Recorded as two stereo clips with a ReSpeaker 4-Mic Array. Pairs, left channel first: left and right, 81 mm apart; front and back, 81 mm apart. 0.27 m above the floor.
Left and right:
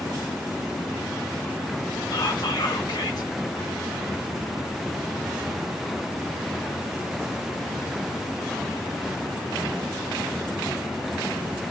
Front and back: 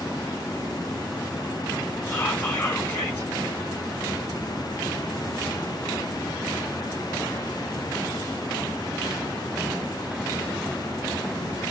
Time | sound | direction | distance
2.1 | whispering | 60° left | 2 m